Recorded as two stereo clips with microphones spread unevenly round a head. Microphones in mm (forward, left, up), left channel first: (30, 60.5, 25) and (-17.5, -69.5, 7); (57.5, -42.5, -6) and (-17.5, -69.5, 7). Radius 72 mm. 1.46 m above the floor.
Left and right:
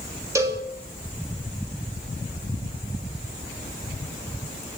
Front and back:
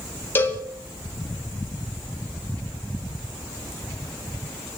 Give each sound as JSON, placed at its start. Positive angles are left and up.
{"t": 0.3, "sound": "a cowbell", "azimuth_deg": -40, "distance_m": 1.9}